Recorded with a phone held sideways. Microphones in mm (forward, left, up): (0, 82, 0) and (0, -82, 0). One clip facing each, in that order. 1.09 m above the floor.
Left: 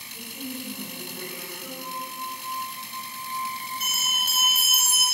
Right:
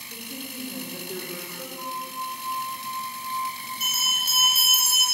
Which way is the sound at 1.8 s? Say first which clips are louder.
Right 3 dB; 45° right (ahead or behind).